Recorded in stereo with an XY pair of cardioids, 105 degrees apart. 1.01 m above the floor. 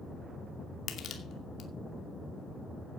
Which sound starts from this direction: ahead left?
Crushing, at 0.9 s.